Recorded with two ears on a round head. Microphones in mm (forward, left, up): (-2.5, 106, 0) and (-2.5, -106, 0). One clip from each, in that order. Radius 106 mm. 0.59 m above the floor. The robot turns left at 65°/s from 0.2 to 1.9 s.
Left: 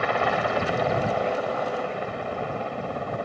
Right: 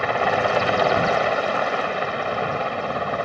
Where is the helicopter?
5° right; by 3.2 s 120° right.